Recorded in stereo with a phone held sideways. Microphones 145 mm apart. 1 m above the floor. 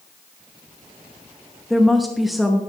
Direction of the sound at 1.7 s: Centre (ahead or behind).